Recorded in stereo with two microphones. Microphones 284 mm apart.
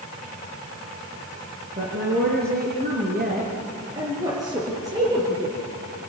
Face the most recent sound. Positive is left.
turn(degrees=-10)  # may be behind; listen again after turning